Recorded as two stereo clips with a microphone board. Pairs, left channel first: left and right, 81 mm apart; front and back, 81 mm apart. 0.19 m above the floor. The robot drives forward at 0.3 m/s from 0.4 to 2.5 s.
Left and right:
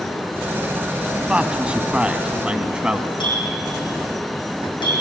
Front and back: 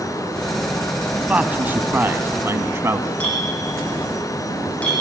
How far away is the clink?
About 7.5 m.